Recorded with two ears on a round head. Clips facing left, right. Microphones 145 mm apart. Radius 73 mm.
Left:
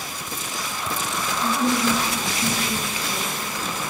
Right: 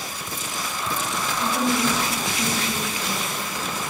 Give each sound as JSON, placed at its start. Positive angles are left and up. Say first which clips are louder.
{"t": 1.4, "sound": "a woman speaking", "louder": "left 1 dB", "side_deg": -40, "distance_m": 9.0}